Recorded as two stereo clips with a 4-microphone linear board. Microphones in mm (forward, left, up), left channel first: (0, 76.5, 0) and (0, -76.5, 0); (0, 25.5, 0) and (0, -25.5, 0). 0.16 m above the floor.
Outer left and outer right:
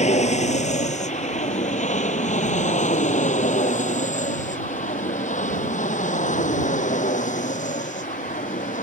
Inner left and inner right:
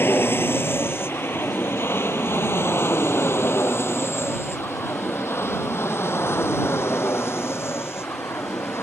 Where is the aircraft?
50° left (ahead or behind); by 8.8 s 60° left (ahead or behind).